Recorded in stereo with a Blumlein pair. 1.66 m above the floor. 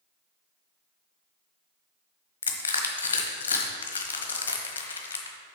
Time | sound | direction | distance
2.4 | crushing | 65° left | 1.2 m